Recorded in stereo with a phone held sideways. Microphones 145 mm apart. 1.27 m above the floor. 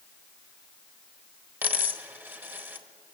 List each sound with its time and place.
1.6 s a dropped coin: 15° right (ahead or behind), 1.0 m